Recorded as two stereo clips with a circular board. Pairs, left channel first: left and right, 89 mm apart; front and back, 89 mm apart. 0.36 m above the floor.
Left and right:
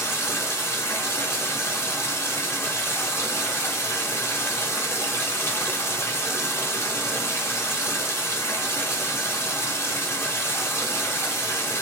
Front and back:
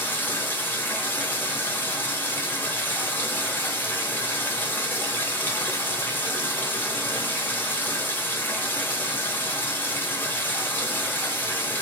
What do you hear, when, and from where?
0.0 s running water: 50° left, 0.8 m